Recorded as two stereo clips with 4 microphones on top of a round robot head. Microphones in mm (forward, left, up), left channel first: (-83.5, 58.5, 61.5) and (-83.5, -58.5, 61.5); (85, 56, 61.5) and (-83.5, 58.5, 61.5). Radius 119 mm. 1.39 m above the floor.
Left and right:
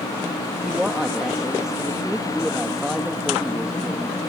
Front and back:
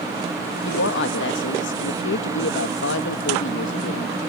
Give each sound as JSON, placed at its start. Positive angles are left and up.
{"t": 0.7, "sound": "a woman speaking", "azimuth_deg": -5}